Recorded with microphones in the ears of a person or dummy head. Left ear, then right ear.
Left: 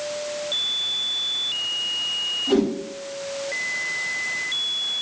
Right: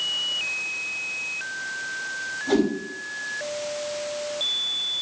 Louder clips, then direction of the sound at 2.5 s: Even; 15° right (ahead or behind).